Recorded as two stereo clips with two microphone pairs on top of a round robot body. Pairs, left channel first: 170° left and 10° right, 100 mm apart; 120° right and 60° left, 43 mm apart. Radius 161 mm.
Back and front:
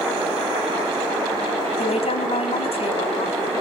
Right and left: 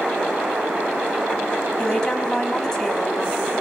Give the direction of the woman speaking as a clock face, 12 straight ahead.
7 o'clock.